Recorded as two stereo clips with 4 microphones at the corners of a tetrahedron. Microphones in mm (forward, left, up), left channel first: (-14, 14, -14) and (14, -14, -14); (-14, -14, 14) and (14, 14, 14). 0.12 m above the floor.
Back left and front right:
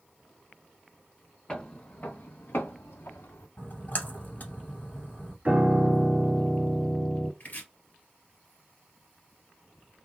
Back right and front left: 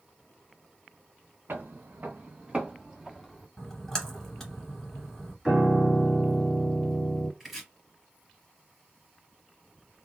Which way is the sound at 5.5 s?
20° right.